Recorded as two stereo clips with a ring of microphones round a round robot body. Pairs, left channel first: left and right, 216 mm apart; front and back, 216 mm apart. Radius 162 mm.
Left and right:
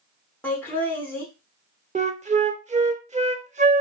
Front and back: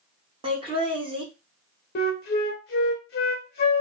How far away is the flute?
About 0.7 m.